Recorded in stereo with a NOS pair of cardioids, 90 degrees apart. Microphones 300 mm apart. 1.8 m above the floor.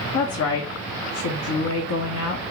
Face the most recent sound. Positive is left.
turn(degrees=60)